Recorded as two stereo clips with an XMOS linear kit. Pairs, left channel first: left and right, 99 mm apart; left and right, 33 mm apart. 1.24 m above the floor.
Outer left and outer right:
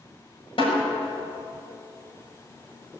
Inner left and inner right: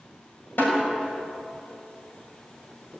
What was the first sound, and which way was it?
A snare drum, 65° left (ahead or behind).